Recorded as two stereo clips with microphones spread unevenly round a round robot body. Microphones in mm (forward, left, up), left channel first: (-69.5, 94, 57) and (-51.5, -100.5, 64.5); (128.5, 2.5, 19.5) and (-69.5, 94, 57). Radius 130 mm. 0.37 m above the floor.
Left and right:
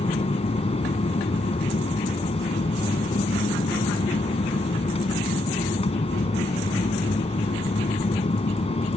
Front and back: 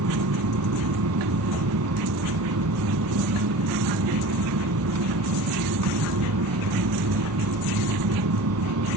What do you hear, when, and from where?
0.0 s an aircraft: 155° left